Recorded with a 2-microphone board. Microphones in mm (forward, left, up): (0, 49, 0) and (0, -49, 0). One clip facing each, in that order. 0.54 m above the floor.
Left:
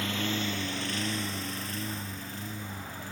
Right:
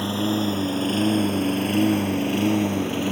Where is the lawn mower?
35° right (ahead or behind); by 3.1 s 85° right.